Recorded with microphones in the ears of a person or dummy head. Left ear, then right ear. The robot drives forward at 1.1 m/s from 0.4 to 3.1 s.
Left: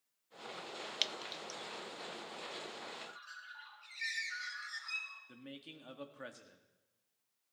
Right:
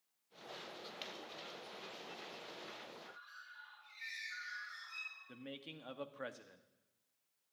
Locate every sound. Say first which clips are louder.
1.0 s dripping: left 12 dB; 55° left (ahead or behind), 0.6 m
3.0 s a bird: left 5 dB; 40° left (ahead or behind), 6 m
5.3 s a man speaking: right 1 dB; 15° right (ahead or behind), 0.9 m